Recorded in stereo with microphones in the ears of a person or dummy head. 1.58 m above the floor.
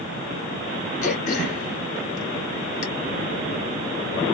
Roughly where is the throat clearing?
Left.